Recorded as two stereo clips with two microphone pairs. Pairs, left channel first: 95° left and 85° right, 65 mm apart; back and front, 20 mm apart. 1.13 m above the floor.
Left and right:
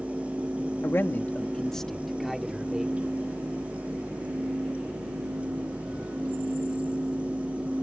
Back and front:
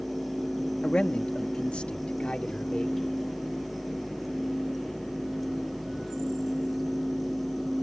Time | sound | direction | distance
0.8 | a man speaking | 140° left | ?